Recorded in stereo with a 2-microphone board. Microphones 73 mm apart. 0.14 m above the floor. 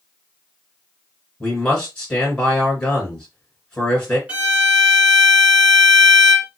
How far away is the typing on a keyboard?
No typing on a keyboard in this recording.